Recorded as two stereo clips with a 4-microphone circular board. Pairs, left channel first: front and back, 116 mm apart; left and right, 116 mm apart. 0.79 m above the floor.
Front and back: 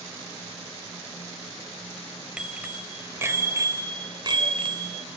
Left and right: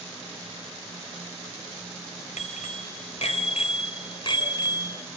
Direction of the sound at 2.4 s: 100° left.